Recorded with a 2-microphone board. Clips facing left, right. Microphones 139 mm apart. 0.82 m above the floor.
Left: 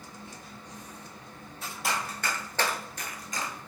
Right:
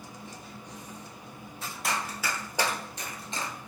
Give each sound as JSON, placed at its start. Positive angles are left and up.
{"t": 1.8, "sound": "running footsteps", "side_deg": 0, "distance_m": 1.2}